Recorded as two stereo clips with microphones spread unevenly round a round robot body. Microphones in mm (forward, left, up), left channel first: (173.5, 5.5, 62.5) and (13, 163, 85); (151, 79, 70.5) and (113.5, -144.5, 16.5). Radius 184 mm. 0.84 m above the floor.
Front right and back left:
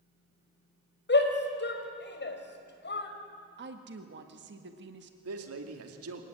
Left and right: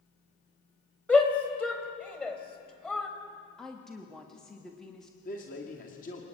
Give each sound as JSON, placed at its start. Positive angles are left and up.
{"t": 1.1, "sound": "a shout", "azimuth_deg": -5, "distance_m": 4.0}
{"t": 3.6, "sound": "a woman speaking", "azimuth_deg": 175, "distance_m": 1.6}
{"t": 5.2, "sound": "a man speaking", "azimuth_deg": 150, "distance_m": 2.5}